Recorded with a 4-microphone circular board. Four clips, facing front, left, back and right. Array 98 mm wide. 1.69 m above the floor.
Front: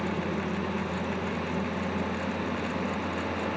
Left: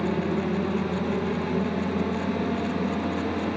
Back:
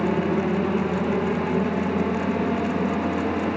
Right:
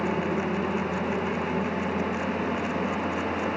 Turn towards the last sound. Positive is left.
turn(degrees=165)